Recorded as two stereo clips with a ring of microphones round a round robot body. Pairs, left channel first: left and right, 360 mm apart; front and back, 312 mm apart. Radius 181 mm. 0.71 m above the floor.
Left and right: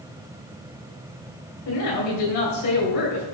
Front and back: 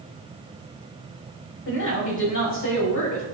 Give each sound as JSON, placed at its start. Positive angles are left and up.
{"t": 1.6, "sound": "a woman speaking", "azimuth_deg": 45, "distance_m": 4.5}